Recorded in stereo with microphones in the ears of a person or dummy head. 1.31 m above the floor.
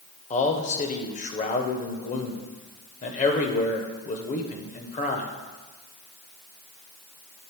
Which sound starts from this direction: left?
A man speaking, at 0.3 s.